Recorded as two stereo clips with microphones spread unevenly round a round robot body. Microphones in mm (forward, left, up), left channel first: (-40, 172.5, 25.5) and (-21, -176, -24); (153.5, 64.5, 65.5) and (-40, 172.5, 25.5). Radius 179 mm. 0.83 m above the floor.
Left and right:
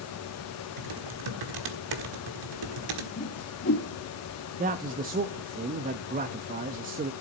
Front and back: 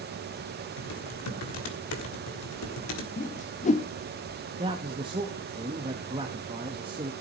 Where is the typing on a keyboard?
60° right, 1.5 m.